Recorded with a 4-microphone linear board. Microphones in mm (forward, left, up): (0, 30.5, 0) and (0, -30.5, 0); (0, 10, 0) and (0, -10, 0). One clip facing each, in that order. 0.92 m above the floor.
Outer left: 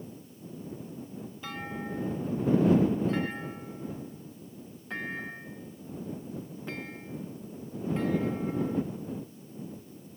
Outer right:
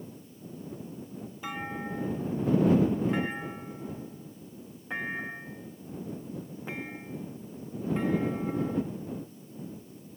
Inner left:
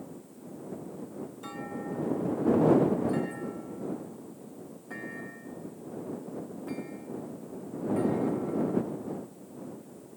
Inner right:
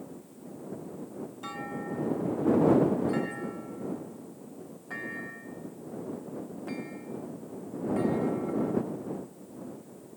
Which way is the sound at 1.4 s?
15° right (ahead or behind).